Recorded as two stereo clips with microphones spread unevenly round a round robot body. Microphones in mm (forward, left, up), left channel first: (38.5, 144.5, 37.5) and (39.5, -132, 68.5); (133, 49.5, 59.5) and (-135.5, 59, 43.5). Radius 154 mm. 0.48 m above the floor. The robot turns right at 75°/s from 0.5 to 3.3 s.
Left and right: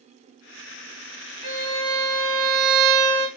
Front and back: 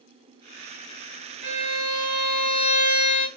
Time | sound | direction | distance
1.4 | a violin | 165° right | 1.9 m